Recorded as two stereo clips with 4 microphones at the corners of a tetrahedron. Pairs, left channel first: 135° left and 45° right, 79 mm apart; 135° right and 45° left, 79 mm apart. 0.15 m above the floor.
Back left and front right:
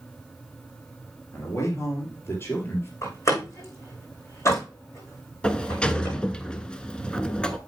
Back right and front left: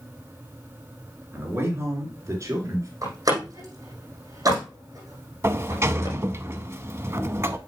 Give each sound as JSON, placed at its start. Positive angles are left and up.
{"t": 1.3, "sound": "a man speaking", "azimuth_deg": 100, "distance_m": 2.5}
{"t": 3.0, "sound": "a door slam", "azimuth_deg": 90, "distance_m": 6.0}
{"t": 5.4, "sound": "a sliding door", "azimuth_deg": 70, "distance_m": 0.6}